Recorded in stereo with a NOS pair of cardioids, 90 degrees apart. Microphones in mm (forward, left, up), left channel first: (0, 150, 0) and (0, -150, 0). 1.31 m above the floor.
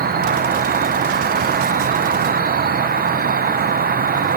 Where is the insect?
30° right, 0.8 m.